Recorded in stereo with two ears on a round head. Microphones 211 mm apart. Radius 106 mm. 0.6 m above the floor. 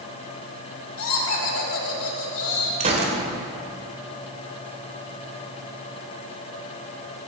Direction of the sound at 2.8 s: 30° right (ahead or behind).